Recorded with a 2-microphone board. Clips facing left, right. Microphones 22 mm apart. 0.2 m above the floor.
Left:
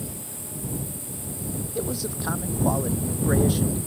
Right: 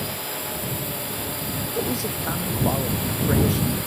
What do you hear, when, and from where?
0.0 s a drone: 55° right (ahead or behind)
1.8 s a man speaking: centre (ahead or behind)